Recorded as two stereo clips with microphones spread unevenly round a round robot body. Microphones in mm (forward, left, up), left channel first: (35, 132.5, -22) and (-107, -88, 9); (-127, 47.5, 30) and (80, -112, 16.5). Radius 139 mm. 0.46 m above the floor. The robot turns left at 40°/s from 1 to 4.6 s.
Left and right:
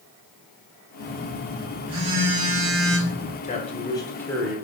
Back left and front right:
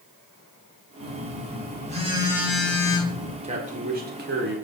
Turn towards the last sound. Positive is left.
turn(degrees=-30)